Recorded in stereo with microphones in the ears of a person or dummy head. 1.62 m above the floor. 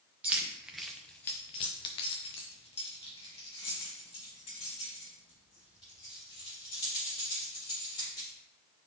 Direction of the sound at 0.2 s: 10° right (ahead or behind).